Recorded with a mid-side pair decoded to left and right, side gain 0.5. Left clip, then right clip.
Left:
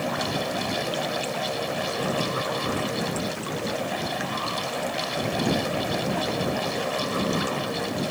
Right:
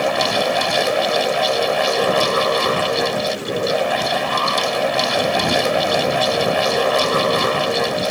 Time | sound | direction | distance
0.0 | a fan | 60° right | ?